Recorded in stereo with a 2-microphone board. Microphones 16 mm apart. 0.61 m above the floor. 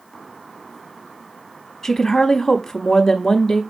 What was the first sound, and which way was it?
A woman speaking, 40° left (ahead or behind).